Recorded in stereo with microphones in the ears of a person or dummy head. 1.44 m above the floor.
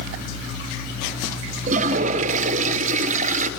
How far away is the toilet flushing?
About 0.8 m.